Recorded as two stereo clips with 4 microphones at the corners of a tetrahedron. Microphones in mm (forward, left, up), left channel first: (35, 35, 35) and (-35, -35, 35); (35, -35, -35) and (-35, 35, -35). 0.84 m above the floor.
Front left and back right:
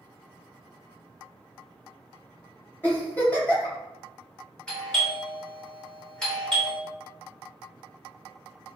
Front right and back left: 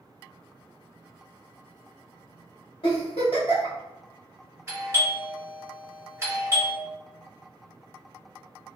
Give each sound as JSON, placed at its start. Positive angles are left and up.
{"t": 2.8, "sound": "a giggle", "azimuth_deg": -25, "distance_m": 1.6}
{"t": 4.7, "sound": "a doorbell", "azimuth_deg": 120, "distance_m": 1.2}